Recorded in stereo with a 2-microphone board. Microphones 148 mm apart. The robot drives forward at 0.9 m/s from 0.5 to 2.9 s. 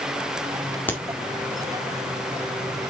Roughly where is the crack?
Centre.